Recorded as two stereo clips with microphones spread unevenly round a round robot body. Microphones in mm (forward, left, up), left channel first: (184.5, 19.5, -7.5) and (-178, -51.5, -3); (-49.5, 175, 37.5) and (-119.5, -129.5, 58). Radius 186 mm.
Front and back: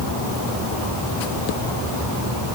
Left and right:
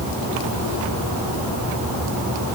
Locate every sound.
Only background noise.